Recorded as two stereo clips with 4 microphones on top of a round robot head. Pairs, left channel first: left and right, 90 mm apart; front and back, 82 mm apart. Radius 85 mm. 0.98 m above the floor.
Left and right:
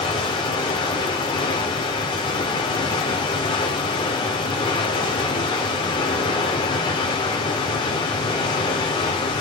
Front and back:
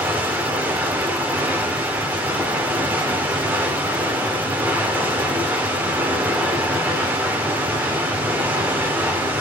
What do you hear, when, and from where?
0.0 s running water: 115° left, 0.8 m